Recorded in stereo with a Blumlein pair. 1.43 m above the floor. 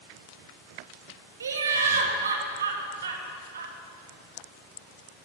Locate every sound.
1.4 s laughter: 70° right, 1.5 m